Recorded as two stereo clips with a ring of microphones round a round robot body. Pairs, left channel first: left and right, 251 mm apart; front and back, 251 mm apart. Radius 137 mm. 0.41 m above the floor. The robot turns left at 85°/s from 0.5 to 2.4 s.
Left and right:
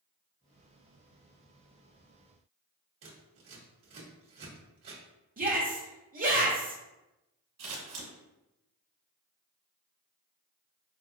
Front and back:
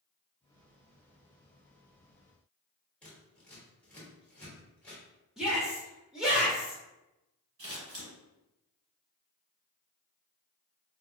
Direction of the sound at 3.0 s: 85° right.